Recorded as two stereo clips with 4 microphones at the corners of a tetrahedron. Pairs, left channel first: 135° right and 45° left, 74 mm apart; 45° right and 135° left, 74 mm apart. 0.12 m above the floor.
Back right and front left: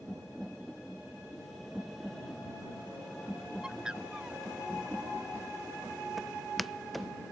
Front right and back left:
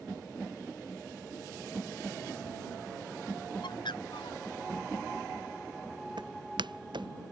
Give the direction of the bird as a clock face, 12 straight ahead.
1 o'clock.